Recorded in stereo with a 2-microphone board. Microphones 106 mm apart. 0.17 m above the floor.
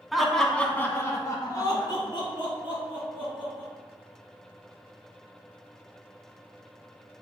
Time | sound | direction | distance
0.1 | laughter | centre (ahead or behind) | 1.1 m